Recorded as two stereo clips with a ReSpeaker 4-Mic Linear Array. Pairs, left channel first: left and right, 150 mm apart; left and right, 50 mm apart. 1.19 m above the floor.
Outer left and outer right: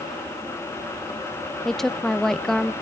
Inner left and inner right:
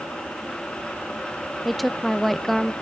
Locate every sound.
1.6 s a woman speaking: centre (ahead or behind), 0.7 m